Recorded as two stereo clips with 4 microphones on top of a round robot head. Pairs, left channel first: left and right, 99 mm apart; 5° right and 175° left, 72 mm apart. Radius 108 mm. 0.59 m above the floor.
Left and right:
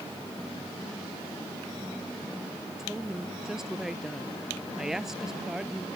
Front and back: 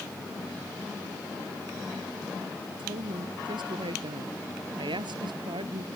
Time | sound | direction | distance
2.8 | a woman speaking | 175° right | ?